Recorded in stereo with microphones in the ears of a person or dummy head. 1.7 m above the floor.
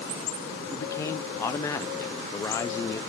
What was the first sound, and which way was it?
A man speaking, 15° left (ahead or behind).